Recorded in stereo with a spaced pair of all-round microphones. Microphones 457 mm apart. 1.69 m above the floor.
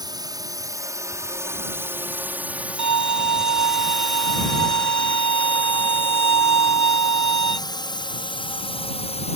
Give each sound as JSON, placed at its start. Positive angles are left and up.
{"t": 0.0, "sound": "a drone", "side_deg": -10}
{"t": 2.8, "sound": "a violin", "side_deg": -40}